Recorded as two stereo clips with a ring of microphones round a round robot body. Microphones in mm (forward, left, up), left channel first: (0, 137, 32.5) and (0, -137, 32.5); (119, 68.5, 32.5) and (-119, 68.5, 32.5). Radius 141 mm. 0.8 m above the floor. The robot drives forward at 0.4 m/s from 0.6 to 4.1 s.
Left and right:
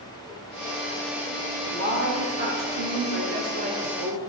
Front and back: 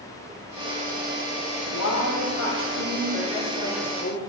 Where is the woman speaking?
35° right, 2.5 m; by 4.2 s 50° right, 2.0 m.